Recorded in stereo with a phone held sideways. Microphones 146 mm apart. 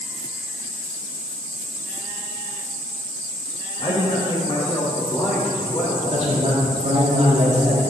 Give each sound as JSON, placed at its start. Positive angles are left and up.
{"t": 3.8, "sound": "a man speaking", "side_deg": 45, "distance_m": 1.0}
{"t": 6.1, "sound": "a man speaking", "side_deg": -55, "distance_m": 1.6}